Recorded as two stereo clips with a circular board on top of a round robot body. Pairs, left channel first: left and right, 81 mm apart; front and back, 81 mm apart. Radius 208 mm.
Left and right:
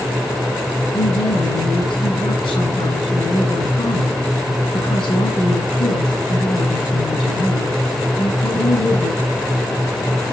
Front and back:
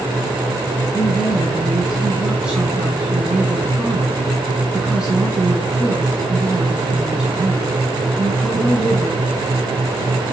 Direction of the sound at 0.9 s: 100° left.